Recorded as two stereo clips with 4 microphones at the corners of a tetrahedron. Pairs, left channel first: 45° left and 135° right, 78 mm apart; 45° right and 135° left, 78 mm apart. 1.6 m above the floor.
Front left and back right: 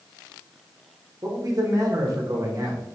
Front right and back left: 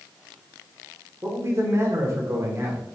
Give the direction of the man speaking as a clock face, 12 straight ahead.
6 o'clock.